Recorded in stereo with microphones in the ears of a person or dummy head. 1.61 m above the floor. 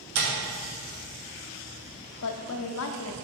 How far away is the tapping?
About 2.5 m.